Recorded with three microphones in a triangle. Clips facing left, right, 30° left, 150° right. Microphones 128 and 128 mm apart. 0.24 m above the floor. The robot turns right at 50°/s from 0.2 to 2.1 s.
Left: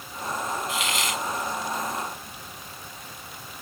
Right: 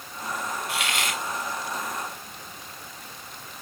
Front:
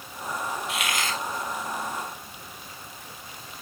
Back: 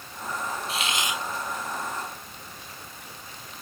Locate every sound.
0.7 s a hiss: 95° right; by 1.2 s 70° right